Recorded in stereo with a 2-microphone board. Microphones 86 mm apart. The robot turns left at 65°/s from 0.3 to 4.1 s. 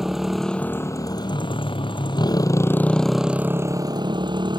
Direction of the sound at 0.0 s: 175° right.